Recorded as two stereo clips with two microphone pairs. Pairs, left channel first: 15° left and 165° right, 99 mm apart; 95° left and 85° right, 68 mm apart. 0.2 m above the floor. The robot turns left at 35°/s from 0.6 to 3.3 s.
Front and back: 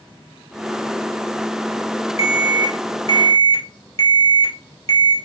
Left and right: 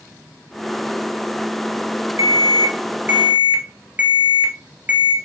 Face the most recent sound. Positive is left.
turn(degrees=-150)